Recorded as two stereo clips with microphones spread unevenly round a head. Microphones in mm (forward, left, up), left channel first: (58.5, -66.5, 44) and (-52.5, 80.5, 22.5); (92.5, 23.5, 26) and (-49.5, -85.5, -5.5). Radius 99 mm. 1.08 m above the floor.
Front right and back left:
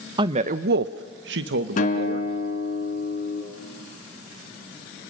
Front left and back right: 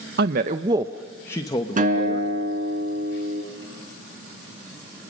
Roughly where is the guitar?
Right.